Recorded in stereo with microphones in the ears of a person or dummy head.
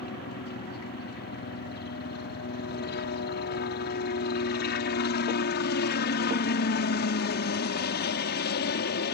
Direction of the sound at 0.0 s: 45° left (ahead or behind).